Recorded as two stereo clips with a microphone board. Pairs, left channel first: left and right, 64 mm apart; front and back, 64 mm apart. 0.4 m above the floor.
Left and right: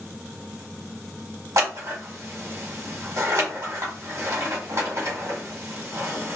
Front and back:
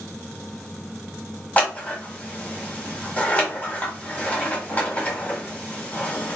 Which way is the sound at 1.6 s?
70° right.